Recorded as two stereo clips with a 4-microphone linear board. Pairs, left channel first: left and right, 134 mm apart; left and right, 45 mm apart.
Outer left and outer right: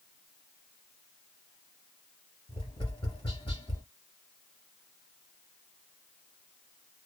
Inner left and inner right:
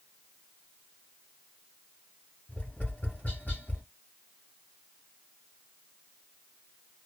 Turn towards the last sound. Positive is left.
turn(degrees=35)  # may be behind; listen again after turning